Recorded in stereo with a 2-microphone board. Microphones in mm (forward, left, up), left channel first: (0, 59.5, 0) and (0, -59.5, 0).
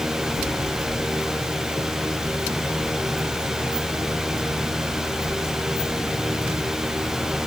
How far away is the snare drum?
I don't hear a snare drum.